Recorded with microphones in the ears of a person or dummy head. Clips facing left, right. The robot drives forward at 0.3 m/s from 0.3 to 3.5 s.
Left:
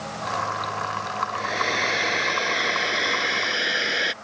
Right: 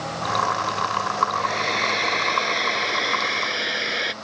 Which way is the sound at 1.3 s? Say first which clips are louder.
Right 2 dB; 5° left (ahead or behind).